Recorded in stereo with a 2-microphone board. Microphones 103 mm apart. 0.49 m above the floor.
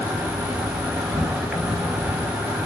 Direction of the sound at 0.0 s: 10° right (ahead or behind).